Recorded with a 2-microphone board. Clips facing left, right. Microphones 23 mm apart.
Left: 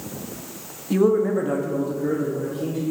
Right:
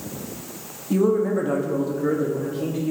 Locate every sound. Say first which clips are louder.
0.9 s a man speaking: left 1 dB; 30° left (ahead or behind), 0.6 m; by 2.9 s 45° right (ahead or behind), 1.2 m